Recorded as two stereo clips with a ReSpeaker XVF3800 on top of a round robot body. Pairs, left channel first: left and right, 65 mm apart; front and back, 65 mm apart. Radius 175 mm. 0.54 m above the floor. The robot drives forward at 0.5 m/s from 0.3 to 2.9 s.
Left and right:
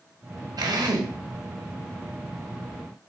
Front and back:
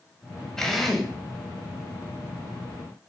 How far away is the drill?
About 2 m.